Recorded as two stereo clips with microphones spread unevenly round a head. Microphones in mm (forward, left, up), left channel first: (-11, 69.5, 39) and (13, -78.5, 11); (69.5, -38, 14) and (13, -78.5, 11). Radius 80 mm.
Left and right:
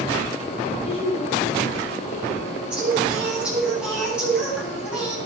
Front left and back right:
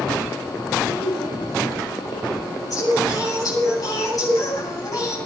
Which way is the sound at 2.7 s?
5° left.